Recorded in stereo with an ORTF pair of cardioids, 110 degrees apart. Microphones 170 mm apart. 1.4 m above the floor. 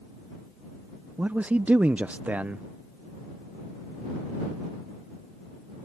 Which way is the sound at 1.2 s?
10° right.